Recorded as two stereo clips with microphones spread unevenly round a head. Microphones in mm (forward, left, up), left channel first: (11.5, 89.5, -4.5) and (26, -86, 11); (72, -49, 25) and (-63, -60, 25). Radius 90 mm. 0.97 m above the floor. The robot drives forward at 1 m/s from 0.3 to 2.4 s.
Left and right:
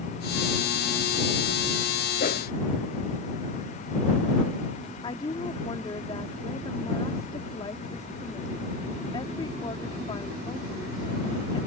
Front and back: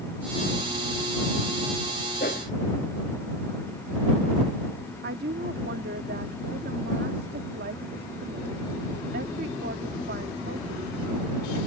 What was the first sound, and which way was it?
A whoosh, 50° left.